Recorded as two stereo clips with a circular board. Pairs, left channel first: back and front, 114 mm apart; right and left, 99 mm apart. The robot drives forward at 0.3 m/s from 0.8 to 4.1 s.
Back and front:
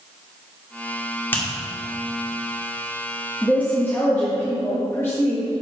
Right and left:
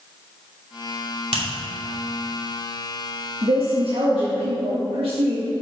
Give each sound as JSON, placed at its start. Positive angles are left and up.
{"t": 1.3, "sound": "a finger snap", "azimuth_deg": 105, "distance_m": 2.5}
{"t": 3.4, "sound": "a woman speaking", "azimuth_deg": 105, "distance_m": 1.5}